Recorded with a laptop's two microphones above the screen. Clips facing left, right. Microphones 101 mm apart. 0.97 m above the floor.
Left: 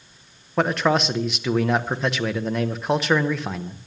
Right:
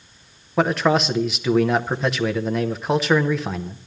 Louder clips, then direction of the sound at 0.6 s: Right 2 dB; centre (ahead or behind).